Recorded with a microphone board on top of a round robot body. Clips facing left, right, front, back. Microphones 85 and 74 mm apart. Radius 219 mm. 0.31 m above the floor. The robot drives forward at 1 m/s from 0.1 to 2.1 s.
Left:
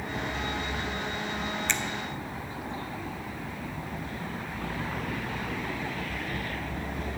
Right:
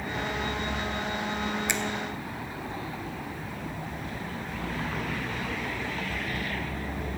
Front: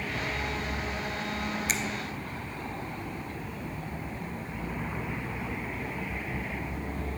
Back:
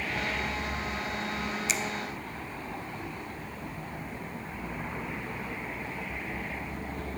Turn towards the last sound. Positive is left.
turn(degrees=-30)